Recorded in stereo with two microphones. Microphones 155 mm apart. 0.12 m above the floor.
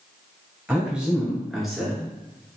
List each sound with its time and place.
0.7 s a man speaking: 10° right (ahead or behind), 1.7 m; by 2.1 s 5° left (ahead or behind), 1.3 m